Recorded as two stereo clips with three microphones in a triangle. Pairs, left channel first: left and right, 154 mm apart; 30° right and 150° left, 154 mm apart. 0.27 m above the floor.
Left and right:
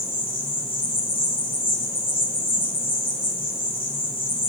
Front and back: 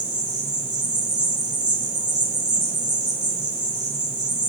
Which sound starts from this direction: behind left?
An insect, at 0.0 s.